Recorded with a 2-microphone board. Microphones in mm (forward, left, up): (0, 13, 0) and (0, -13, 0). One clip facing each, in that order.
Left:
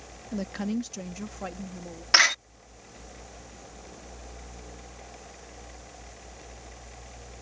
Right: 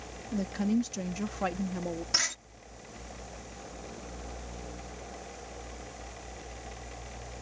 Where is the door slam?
55° left (ahead or behind).